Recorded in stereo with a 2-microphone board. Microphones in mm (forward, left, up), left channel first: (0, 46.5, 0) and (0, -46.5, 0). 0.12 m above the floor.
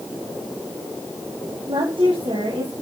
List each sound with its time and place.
1.7 s a woman speaking: 60° right (ahead or behind), 8 m